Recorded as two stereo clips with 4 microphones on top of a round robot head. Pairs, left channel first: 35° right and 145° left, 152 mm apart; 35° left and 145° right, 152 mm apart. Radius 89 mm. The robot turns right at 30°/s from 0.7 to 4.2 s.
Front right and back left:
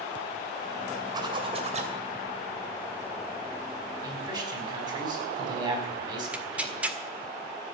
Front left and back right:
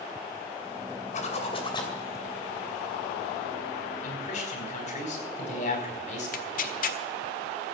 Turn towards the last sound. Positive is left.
turn(degrees=65)